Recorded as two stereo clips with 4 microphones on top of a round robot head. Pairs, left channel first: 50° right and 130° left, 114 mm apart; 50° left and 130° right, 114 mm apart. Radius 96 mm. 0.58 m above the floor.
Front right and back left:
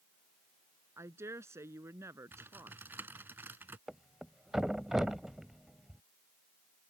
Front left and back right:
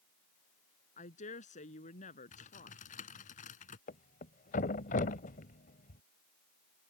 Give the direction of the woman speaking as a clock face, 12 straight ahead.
10 o'clock.